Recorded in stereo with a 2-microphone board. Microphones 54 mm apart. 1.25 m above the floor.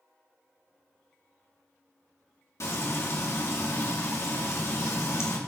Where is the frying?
65° left (ahead or behind), 3 m.